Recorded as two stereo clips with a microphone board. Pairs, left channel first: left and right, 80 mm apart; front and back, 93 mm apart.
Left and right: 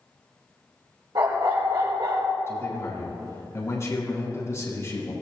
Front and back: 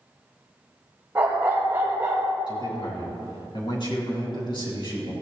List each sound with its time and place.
1.1 s a dog barking: 110° right, 4.5 m; by 2.4 s 115° right, 3.5 m
2.5 s a man speaking: 35° left, 3.5 m